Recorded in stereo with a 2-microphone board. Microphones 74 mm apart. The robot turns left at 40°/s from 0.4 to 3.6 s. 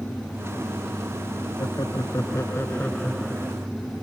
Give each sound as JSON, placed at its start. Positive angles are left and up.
{"t": 1.6, "sound": "laughter", "azimuth_deg": 75}